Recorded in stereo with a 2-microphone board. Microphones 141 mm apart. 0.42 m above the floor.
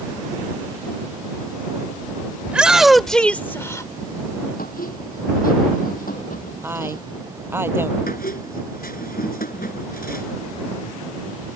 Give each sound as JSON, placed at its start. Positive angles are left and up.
{"t": 2.5, "sound": "a shout", "side_deg": -10}
{"t": 4.6, "sound": "a squeak", "side_deg": 70}
{"t": 6.6, "sound": "a woman speaking", "side_deg": -15}
{"t": 8.1, "sound": "a squeak", "side_deg": 85}